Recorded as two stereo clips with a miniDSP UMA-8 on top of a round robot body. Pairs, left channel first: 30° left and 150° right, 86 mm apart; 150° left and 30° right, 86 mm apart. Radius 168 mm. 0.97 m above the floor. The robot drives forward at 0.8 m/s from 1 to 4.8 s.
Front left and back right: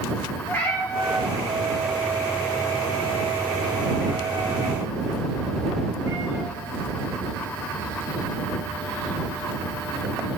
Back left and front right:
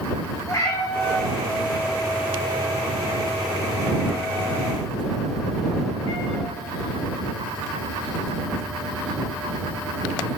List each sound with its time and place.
0.5 s a cat meowing: 95° left, 1.7 m; by 6.5 s 155° left, 3.5 m